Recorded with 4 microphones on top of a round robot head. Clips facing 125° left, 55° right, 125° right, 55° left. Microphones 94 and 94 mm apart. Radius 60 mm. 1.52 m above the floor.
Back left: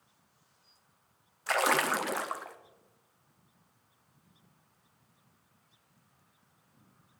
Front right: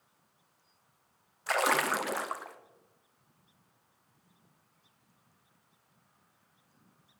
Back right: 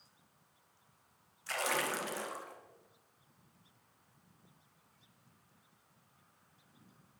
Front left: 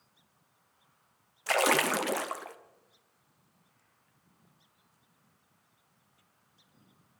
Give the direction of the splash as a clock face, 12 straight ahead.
11 o'clock.